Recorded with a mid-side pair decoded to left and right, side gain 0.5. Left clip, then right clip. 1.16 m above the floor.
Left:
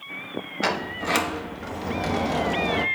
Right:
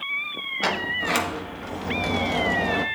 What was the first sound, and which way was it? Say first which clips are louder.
A sliding door: right 1 dB; 5° left.